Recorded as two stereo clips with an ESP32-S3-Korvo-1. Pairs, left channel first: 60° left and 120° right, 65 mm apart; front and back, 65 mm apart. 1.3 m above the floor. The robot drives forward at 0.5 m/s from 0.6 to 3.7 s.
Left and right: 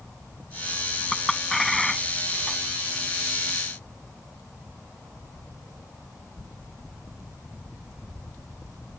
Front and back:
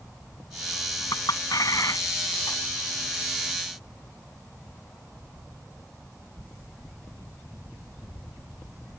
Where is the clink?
25° right.